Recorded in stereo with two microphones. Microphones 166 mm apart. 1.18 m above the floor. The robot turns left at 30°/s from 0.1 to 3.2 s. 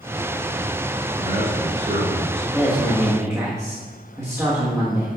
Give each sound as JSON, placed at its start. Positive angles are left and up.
{"t": 1.2, "sound": "a man speaking", "azimuth_deg": -35, "distance_m": 4.0}
{"t": 2.5, "sound": "a woman speaking", "side_deg": 5, "distance_m": 1.6}